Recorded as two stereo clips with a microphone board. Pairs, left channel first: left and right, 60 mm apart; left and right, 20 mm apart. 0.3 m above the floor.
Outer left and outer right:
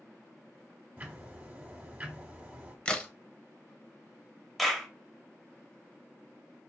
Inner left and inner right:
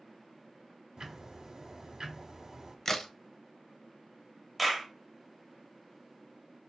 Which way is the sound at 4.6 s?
Centre (ahead or behind).